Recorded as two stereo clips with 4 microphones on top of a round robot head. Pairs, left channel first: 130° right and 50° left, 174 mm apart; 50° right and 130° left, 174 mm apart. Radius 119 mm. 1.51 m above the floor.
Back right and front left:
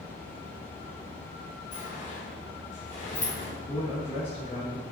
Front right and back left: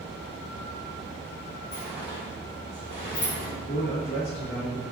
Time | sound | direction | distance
1.7 | a sliding door | 85° right | 3 m
3.7 | a man speaking | 75° right | 3 m